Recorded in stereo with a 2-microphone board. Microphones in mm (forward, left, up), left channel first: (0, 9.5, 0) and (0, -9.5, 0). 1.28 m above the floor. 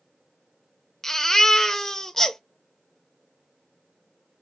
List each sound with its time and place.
1.0 s a baby crying: 25° left (ahead or behind), 0.9 m